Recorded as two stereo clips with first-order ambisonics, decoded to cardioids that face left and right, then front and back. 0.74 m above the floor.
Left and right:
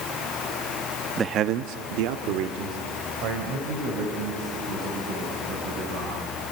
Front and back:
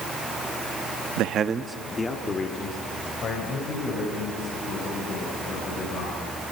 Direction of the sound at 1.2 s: 160° right.